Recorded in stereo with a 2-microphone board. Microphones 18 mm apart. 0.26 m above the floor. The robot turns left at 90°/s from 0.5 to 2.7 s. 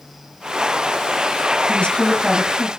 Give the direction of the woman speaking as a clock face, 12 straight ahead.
9 o'clock.